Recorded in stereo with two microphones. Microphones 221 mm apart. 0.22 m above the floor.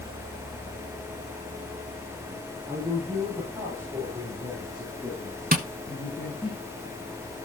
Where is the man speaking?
20° right (ahead or behind), 6 m; by 6.5 s 15° left (ahead or behind), 3.5 m.